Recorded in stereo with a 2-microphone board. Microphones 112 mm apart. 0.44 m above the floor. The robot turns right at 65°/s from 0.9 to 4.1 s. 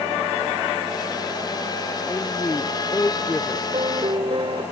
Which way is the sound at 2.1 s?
10° left (ahead or behind).